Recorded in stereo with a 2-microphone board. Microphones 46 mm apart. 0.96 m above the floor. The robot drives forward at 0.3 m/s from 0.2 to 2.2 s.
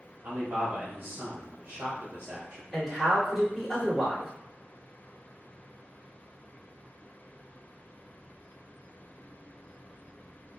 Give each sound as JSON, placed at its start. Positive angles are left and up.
{"t": 0.2, "sound": "a man speaking", "side_deg": -45, "distance_m": 0.7}
{"t": 2.7, "sound": "a man speaking", "side_deg": 5, "distance_m": 1.5}